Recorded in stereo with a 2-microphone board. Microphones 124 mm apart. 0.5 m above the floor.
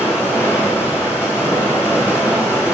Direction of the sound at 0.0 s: 20° left (ahead or behind).